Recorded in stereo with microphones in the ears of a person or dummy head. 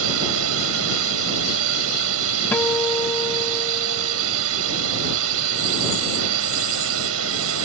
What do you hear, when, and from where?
0.0 s a drone: 80° right
2.5 s a guitar: 15° left (ahead or behind)